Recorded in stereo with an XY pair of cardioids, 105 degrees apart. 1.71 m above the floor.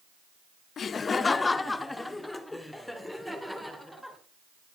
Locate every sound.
0.8 s laughter: 55° left, 0.7 m; by 4.2 s straight ahead, 2.5 m